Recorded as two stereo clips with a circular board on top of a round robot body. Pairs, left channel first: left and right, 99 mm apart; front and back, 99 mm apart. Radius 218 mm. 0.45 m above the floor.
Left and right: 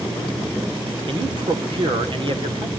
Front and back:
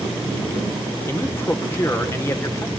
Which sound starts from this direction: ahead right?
A man speaking, at 1.1 s.